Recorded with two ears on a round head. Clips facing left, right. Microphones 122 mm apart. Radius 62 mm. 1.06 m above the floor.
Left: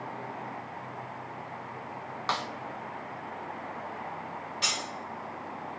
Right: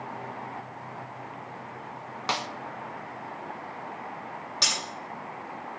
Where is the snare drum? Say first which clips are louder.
Right 1 dB; 20° right (ahead or behind), 0.6 m.